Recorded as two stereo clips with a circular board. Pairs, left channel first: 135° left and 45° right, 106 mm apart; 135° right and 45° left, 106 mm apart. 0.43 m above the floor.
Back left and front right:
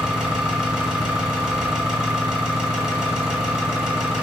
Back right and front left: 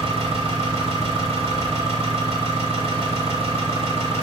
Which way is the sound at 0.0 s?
40° left.